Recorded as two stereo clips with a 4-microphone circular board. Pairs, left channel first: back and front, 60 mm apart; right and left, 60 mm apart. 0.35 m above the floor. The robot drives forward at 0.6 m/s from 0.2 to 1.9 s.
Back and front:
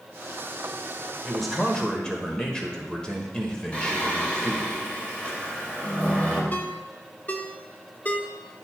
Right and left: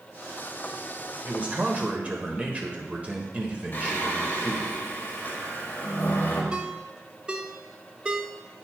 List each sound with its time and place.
1.2 s a man speaking: 85° left, 1.3 m; by 4.7 s 120° left, 1.4 m
3.7 s singing: 125° right, 1.6 m
6.5 s a ringtone: 150° left, 0.6 m